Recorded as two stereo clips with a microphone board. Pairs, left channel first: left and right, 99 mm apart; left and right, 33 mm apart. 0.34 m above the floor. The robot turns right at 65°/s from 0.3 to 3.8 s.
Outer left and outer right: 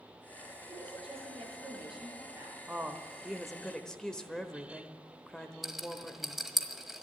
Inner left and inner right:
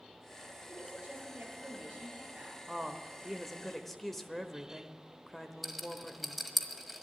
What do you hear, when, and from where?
0.7 s a woman speaking: 145° right, 5.5 m; by 2.6 s 25° right, 5.5 m
2.7 s a woman speaking: 15° right (ahead or behind), 1.1 m; by 6.4 s 10° left (ahead or behind), 1.1 m
5.6 s a rattle: centre (ahead or behind), 1.4 m